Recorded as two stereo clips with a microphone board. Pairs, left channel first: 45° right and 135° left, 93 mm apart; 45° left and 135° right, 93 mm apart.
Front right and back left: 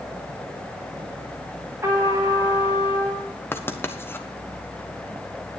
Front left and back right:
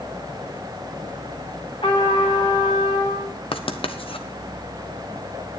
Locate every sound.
1.8 s a trumpet: 70° left, 9.5 m
3.5 s writing: 20° left, 1.2 m